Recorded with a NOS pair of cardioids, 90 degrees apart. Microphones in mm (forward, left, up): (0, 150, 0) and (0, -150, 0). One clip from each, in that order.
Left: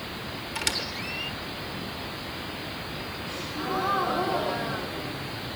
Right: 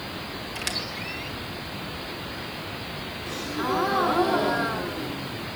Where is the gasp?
65° right, 2 m.